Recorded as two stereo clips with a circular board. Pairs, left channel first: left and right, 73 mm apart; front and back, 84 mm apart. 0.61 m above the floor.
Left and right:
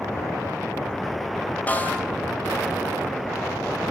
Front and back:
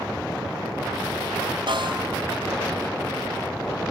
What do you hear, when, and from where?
1.7 s a snare drum: 160° left, 4 m